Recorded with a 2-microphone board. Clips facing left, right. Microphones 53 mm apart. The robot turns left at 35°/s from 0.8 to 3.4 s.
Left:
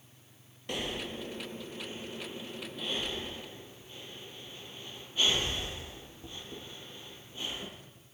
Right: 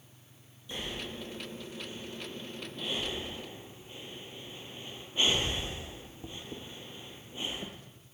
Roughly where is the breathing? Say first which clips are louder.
Left 3 dB; left.